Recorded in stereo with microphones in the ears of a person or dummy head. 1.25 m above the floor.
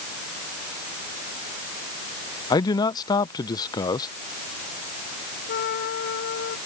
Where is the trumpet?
65° left (ahead or behind).